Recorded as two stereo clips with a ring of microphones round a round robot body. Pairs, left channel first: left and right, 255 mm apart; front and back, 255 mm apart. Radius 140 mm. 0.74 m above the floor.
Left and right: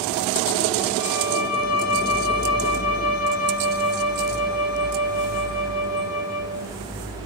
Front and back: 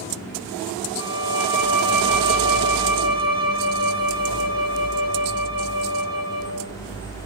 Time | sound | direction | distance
1.0 | a violin | 110° left | 7.5 m